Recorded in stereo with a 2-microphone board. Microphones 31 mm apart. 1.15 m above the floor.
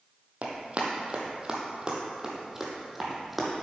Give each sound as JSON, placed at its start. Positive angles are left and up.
{"t": 0.4, "sound": "running footsteps", "side_deg": -45, "distance_m": 1.5}